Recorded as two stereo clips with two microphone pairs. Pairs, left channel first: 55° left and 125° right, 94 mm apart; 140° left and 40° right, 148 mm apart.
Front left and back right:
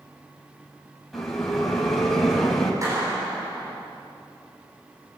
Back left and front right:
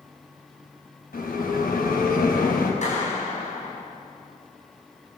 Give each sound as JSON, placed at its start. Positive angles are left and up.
{"t": 1.1, "sound": "a bell", "azimuth_deg": 140, "distance_m": 5.5}
{"t": 2.8, "sound": "a clap", "azimuth_deg": 175, "distance_m": 9.5}